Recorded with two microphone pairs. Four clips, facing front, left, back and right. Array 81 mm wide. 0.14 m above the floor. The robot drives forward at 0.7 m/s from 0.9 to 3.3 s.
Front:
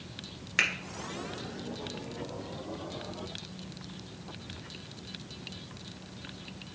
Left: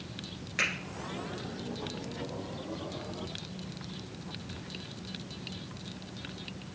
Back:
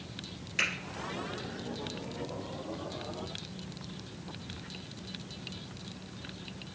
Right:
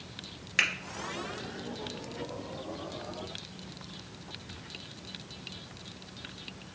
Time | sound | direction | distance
0.6 | a finger snap | 20° right | 1.9 m